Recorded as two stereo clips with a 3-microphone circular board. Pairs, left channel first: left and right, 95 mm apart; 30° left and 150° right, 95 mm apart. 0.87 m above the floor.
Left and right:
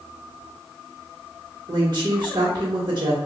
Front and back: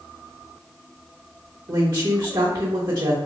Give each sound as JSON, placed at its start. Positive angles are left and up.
{"t": 1.7, "sound": "a woman speaking", "azimuth_deg": -120, "distance_m": 1.0}